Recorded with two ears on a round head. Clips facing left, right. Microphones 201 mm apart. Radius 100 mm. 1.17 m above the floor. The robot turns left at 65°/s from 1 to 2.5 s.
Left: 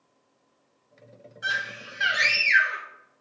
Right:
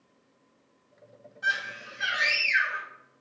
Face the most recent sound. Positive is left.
turn(degrees=95)